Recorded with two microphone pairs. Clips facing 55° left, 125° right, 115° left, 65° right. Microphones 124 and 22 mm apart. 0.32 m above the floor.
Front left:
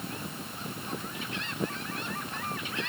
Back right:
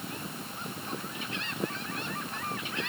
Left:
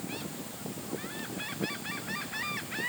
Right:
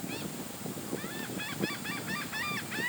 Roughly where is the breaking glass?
I don't hear breaking glass.